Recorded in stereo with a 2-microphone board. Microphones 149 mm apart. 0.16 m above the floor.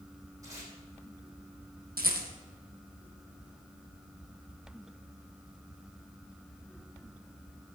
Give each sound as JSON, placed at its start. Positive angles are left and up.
{"t": 0.4, "sound": "tape being pulled", "side_deg": -20, "distance_m": 5.5}
{"t": 2.0, "sound": "a rattle", "side_deg": -80, "distance_m": 3.0}